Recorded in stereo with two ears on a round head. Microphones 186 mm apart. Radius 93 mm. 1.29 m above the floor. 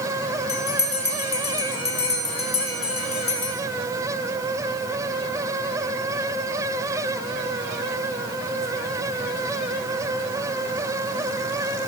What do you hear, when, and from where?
0.5 s a bell: 25° left (ahead or behind), 3 m